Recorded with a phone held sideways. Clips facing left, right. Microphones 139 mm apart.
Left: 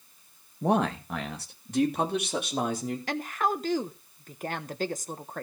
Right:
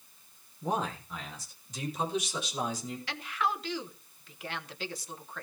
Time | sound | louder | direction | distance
0.6 | a man speaking | left 7 dB | 75° left (ahead or behind) | 1.9 m
3.1 | a woman speaking | left 3 dB | 50° left (ahead or behind) | 1.2 m